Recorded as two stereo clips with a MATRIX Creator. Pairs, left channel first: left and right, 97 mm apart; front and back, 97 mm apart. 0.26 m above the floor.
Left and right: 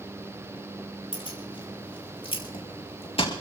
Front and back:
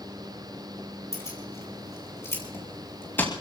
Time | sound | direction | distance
1.1 | keys jangling | 60° left | 5 m